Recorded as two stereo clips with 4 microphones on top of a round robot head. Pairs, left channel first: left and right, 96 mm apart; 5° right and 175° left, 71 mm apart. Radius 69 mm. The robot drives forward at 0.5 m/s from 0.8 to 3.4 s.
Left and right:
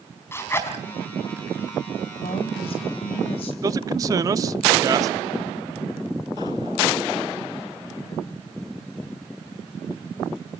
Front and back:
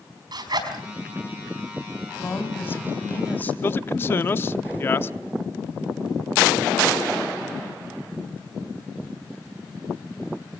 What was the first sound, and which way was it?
A zipper, 155° left.